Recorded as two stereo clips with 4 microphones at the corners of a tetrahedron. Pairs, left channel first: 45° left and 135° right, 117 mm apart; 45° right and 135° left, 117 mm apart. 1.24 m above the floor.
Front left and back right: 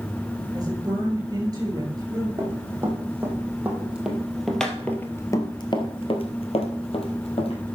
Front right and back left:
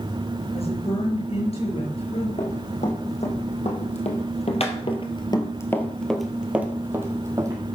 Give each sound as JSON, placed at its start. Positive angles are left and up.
{"t": 0.5, "sound": "a woman speaking", "azimuth_deg": -75, "distance_m": 6.5}
{"t": 2.4, "sound": "running footsteps", "azimuth_deg": -70, "distance_m": 4.5}